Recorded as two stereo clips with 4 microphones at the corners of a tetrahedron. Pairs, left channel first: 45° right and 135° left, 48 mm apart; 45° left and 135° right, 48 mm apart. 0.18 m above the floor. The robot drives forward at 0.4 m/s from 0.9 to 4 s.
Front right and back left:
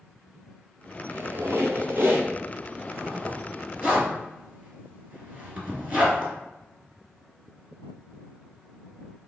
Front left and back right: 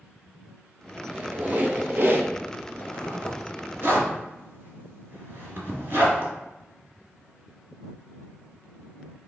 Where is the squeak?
170° left, 0.6 m; by 2.3 s 175° left, 1.1 m.